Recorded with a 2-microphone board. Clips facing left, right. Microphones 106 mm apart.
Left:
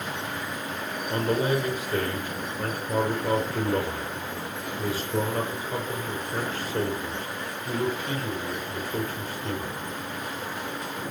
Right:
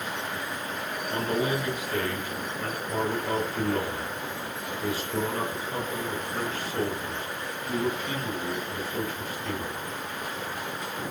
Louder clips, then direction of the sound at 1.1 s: Left 3 dB; 35° left (ahead or behind).